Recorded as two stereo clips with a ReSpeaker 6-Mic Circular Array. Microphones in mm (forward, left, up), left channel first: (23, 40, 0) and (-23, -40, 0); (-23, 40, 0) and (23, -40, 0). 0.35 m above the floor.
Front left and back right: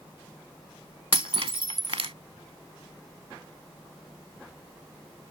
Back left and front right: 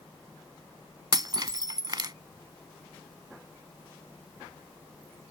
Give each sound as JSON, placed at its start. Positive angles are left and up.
{"t": 1.1, "sound": "breaking glass", "azimuth_deg": -100}